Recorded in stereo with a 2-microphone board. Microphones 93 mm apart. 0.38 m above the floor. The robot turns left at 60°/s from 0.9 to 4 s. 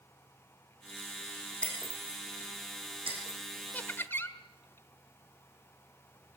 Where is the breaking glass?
15° left (ahead or behind), 6 m; by 3.5 s 80° right, 6 m.